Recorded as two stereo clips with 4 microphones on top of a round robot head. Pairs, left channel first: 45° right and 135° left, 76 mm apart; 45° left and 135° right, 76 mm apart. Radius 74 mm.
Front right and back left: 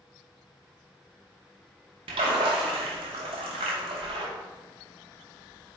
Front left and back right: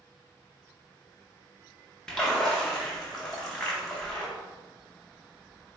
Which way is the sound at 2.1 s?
130° left.